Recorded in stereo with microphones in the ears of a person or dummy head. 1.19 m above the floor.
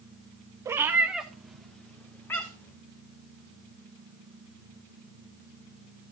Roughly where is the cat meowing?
Centre.